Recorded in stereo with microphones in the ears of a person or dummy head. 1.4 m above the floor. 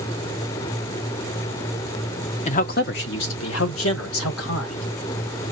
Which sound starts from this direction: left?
A man speaking, at 2.5 s.